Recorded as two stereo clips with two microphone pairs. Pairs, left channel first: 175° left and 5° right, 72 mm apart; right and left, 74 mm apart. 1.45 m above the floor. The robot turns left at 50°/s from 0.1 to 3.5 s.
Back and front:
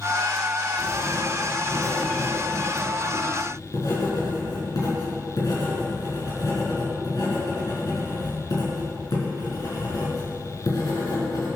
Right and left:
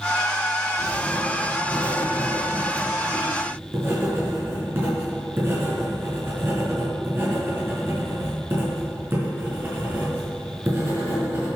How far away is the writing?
About 4.5 m.